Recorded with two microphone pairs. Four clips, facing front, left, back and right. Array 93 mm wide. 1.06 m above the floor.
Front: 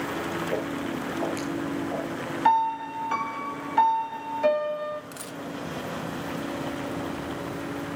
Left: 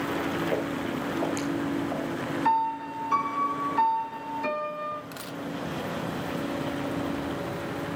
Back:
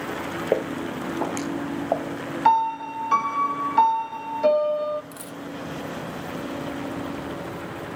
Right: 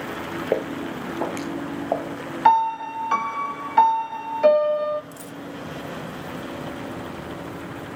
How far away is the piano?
About 1.4 m.